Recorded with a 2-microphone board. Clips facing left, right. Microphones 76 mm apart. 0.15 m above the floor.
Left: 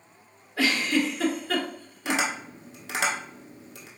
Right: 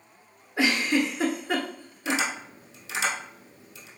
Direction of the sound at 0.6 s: 25° right (ahead or behind).